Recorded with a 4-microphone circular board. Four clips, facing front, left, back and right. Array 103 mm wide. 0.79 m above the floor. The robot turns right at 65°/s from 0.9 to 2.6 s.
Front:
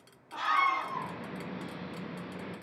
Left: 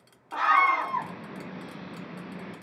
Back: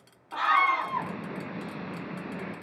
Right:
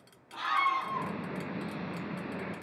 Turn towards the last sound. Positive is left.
turn(degrees=-135)